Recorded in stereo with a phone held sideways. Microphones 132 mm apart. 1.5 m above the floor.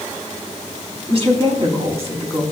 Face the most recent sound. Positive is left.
turn(degrees=-50)  # may be behind; listen again after turning